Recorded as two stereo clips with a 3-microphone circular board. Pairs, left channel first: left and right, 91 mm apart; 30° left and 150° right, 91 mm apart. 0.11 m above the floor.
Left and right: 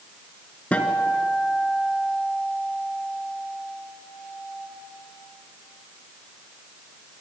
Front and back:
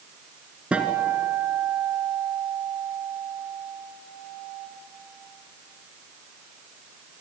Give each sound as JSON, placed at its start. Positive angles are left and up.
{"t": 0.7, "sound": "a guitar", "azimuth_deg": 150, "distance_m": 1.8}